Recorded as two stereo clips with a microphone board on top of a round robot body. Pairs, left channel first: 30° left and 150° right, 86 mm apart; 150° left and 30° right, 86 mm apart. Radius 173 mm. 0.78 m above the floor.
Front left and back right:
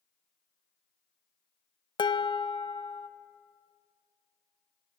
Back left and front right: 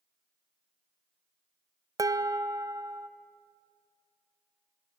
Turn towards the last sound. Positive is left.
turn(degrees=15)